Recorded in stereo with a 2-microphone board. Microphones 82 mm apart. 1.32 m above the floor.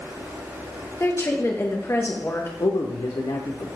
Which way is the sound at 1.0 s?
35° left (ahead or behind).